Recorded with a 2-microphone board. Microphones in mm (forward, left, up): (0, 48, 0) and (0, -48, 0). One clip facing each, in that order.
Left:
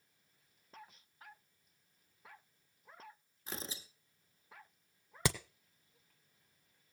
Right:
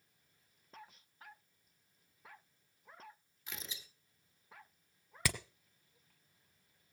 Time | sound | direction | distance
3.5 | tearing paper | 40° left (ahead or behind) | 1.2 m
5.2 | hammering | 25° left (ahead or behind) | 1.4 m